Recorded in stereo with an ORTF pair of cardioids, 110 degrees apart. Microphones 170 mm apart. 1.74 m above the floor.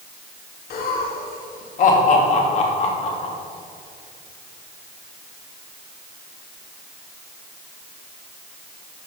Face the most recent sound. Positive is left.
turn(degrees=35)